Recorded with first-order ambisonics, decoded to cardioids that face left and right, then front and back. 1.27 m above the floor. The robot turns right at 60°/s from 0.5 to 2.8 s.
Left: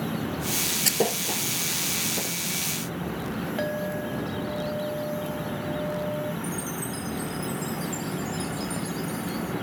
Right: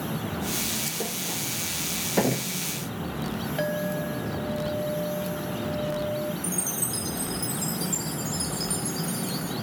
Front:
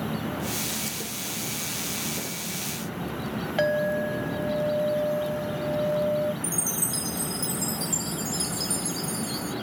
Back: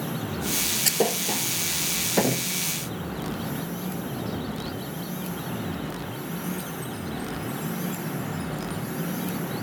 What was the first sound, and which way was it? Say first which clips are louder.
A thud: left 6 dB, back 9 dB; 135° left.